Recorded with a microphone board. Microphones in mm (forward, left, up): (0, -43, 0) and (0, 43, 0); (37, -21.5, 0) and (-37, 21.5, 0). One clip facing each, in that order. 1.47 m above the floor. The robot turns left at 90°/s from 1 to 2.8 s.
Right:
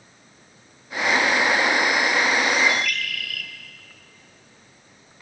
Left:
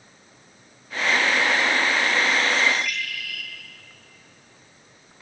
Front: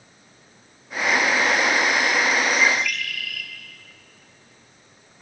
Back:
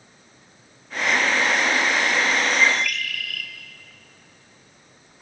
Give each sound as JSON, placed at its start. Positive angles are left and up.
{"t": 2.6, "sound": "a bird", "azimuth_deg": -95, "distance_m": 2.5}